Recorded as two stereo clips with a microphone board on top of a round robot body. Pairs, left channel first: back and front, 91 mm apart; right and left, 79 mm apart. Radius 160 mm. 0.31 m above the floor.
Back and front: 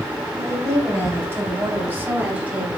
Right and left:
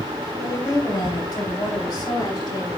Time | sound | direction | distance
0.4 | a woman speaking | 55° right | 4 m